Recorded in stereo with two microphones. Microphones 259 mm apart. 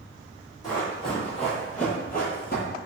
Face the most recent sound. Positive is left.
turn(degrees=35)  # may be behind; listen again after turning